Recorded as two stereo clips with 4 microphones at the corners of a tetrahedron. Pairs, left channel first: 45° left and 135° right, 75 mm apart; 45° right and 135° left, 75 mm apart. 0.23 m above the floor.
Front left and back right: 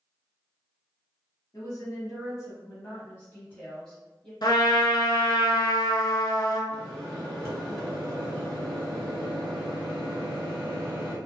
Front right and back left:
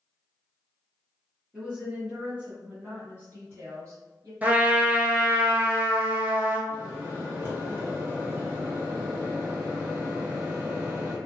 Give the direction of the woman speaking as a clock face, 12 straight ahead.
10 o'clock.